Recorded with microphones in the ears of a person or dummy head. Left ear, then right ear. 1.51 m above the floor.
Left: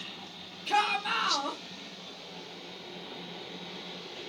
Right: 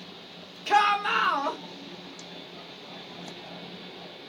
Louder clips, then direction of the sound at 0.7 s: Right 5 dB; 55° right (ahead or behind).